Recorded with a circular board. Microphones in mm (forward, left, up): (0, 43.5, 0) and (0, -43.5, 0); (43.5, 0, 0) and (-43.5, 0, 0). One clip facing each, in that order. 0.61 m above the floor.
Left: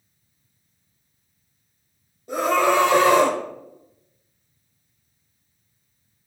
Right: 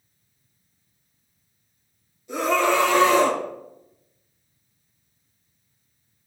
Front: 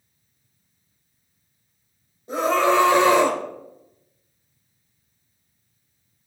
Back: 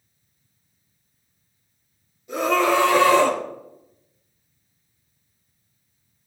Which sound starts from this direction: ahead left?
A scream, at 2.3 s.